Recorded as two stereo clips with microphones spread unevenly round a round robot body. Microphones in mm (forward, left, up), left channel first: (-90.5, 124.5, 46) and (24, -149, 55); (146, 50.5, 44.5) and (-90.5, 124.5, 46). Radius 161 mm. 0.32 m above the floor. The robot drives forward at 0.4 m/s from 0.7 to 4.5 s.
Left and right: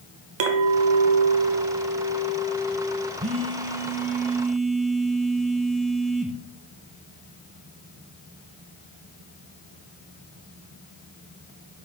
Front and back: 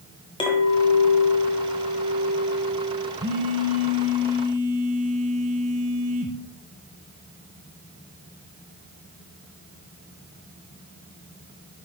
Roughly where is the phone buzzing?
Behind right.